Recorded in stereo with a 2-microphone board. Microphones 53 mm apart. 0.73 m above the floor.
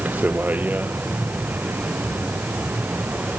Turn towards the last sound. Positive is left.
turn(degrees=-30)  # may be behind; listen again after turning